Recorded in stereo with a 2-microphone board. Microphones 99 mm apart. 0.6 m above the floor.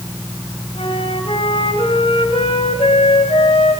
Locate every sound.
0.8 s a flute: 75° left (ahead or behind), 2.5 m